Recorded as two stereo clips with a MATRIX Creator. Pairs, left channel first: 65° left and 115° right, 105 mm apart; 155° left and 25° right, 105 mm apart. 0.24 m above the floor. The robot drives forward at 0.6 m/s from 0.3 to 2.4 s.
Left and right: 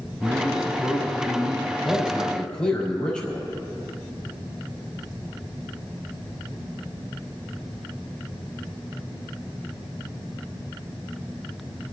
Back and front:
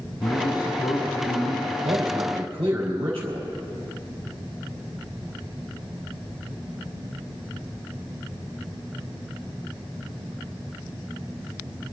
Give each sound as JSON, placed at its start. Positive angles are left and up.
{"t": 0.2, "sound": "a man speaking", "azimuth_deg": 165, "distance_m": 1.4}
{"t": 1.8, "sound": "a man speaking", "azimuth_deg": -10, "distance_m": 5.0}